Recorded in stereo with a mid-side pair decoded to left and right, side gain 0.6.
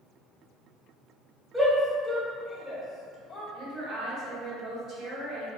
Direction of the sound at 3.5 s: 45° right.